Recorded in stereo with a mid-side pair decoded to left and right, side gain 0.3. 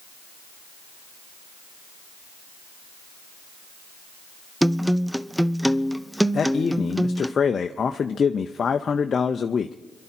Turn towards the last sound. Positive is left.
turn(degrees=60)